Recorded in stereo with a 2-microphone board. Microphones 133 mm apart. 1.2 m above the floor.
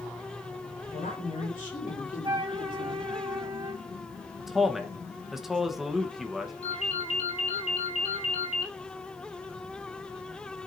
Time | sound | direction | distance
0.9 | a woman speaking | 80° left | 4.5 m
2.2 | a flute | 35° right (ahead or behind) | 1.5 m
4.4 | a man speaking | 5° right (ahead or behind) | 1.0 m
6.6 | a ringtone | 60° left (ahead or behind) | 4 m